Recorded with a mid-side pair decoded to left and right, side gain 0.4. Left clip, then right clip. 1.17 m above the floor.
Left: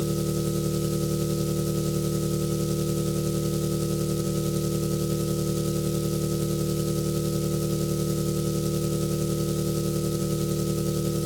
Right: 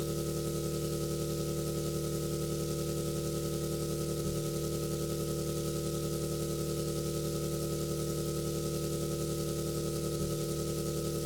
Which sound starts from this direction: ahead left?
An engine running, at 0.0 s.